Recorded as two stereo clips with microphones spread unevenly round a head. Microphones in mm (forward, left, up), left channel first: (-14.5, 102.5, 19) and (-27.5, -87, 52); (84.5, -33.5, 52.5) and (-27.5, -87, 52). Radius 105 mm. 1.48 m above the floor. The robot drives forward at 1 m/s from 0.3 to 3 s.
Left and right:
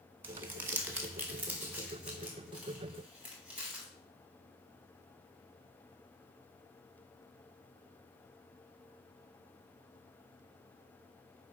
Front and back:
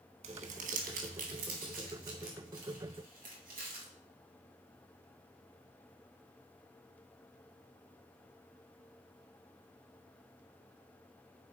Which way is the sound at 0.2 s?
155° right.